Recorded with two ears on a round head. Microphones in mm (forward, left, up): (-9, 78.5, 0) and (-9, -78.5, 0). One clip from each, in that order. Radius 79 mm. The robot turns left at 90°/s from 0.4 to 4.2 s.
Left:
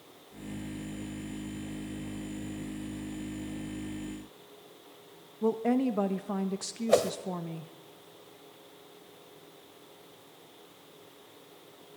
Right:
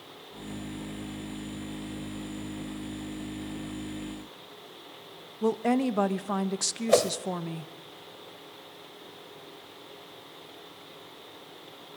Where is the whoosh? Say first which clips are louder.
Right 2 dB; 10° right (ahead or behind), 1.3 m.